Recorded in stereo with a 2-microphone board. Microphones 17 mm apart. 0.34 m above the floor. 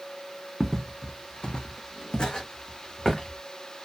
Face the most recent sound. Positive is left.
turn(degrees=50)  # may be behind; listen again after turning